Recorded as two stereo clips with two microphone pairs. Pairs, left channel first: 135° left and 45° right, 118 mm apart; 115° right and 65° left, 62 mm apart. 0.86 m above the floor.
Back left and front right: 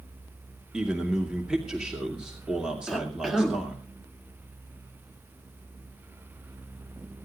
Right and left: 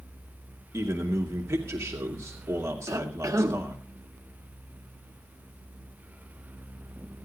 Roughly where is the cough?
Ahead left.